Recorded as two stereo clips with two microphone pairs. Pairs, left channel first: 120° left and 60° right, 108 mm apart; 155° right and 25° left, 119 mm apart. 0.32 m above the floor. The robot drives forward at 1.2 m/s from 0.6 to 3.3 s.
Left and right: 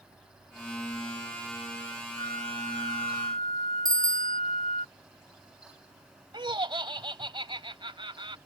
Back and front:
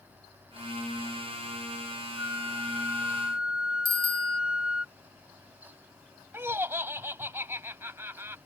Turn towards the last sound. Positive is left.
turn(degrees=-40)